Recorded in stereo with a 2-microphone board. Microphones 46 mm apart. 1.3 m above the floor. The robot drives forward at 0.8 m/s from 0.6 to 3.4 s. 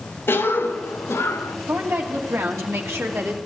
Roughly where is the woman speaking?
Right.